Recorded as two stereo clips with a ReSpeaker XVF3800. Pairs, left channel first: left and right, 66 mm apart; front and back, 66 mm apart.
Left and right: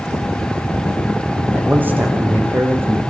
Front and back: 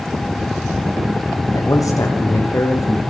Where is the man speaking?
30° right, 7 m; by 3.0 s 40° right, 6.5 m.